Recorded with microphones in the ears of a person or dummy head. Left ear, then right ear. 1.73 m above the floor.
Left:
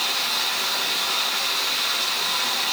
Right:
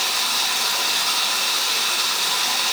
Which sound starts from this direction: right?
Running water, at 0.0 s.